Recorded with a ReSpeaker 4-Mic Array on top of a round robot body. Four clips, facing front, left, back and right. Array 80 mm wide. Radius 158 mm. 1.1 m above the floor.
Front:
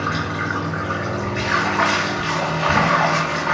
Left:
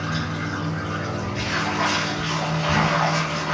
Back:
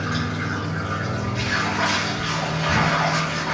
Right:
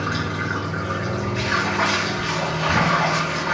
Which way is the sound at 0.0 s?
10° right.